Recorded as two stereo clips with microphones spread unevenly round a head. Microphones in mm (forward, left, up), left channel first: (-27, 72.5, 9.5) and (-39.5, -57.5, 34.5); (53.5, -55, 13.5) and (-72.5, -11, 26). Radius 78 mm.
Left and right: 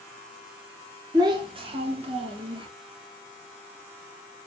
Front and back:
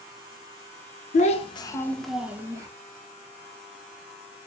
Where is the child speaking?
40° right, 0.6 m; by 2.7 s 135° right, 0.8 m.